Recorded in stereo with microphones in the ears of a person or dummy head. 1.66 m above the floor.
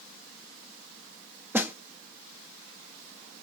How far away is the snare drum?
About 0.5 m.